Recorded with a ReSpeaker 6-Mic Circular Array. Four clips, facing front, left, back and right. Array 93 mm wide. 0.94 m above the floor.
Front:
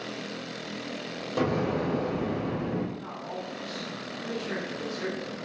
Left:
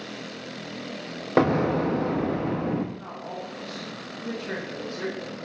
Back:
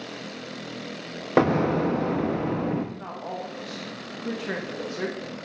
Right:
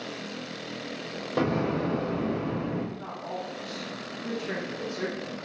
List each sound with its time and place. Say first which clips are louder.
1.4 s an explosion: left 5 dB, back 6 dB; 140° left, 0.5 m
3.0 s a woman speaking: even, back 3 dB; 175° right, 0.8 m